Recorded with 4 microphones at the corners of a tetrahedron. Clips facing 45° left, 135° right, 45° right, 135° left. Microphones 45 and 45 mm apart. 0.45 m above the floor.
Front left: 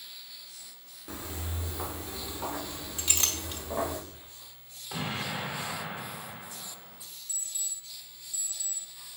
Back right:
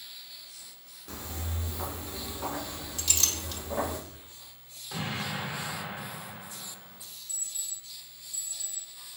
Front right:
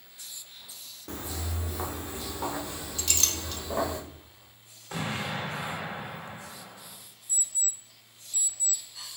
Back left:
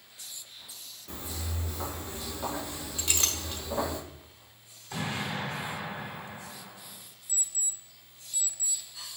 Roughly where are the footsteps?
Ahead right.